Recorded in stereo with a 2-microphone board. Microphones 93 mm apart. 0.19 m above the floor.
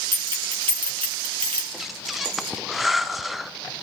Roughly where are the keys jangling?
Right.